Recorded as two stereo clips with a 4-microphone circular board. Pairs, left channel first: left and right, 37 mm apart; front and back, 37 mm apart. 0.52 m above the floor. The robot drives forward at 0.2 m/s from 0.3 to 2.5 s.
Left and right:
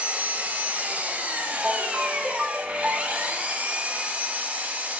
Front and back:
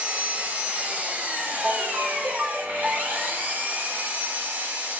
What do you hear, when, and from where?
0.0 s an engine running: 135° right, 1.4 m; by 5.0 s 145° right, 1.7 m
1.6 s a ringtone: 150° right, 1.1 m; by 3.3 s 155° right, 1.2 m